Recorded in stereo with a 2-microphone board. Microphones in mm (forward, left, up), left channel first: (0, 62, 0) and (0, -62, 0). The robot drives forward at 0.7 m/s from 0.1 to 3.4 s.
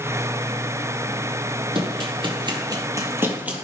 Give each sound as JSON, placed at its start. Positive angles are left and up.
{"t": 1.8, "sound": "running footsteps", "side_deg": -45, "distance_m": 2.0}